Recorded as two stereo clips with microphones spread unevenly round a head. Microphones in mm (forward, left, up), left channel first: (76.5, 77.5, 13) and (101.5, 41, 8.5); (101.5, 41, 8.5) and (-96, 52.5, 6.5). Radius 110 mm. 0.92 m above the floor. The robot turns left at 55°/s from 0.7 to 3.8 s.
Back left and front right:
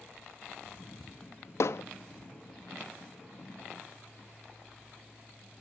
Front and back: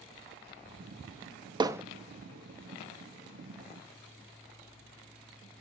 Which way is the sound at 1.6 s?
105° left.